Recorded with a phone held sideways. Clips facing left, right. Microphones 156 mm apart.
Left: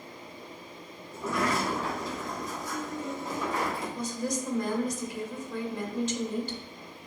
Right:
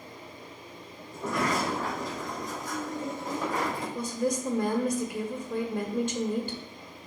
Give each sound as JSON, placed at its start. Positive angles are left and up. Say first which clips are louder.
{"t": 1.1, "sound": "a sliding door", "louder": "even", "side_deg": -60, "distance_m": 4.0}
{"t": 4.0, "sound": "a woman speaking", "louder": "right 3 dB", "side_deg": -60, "distance_m": 1.6}